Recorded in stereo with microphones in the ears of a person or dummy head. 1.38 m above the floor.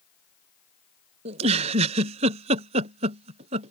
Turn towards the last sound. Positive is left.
turn(degrees=-35)  # may be behind; listen again after turning